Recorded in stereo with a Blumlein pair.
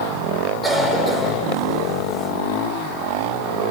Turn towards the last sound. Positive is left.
turn(degrees=0)